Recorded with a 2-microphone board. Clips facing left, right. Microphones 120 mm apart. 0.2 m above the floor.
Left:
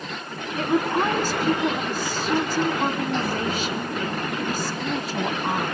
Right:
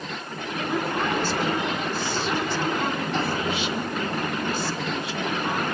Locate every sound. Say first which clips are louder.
0.6 s a woman speaking: left 5 dB; 45° left (ahead or behind), 2 m